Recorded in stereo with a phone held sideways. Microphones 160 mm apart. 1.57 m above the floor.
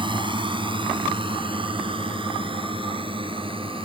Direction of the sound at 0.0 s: 30° right (ahead or behind).